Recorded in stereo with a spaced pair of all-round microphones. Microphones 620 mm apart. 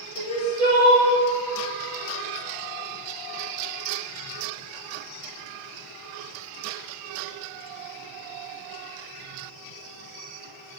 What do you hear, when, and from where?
0.2 s crying: 80° right, 2 m